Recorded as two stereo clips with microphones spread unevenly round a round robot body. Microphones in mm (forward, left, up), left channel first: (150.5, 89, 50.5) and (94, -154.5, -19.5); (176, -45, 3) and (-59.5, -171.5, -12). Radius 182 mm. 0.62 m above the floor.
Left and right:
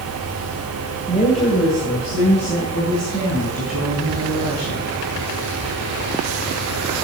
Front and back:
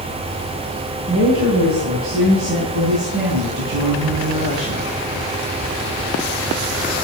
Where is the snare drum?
No snare drum in this recording.